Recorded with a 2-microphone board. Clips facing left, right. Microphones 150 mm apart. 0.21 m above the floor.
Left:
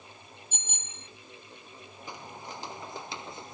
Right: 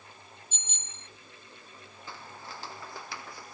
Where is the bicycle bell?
55° left (ahead or behind).